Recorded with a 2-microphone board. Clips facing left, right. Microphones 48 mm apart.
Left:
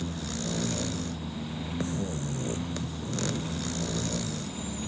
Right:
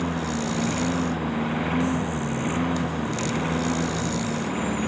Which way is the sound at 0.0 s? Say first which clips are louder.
Right 8 dB; 55° right (ahead or behind).